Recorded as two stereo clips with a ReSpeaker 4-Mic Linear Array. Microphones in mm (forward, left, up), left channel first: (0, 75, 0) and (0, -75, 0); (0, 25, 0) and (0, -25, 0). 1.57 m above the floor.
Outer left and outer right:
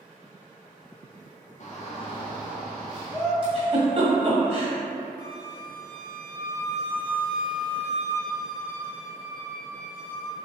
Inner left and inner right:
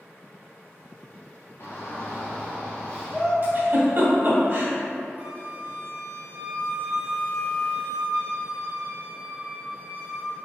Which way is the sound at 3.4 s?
35° right (ahead or behind).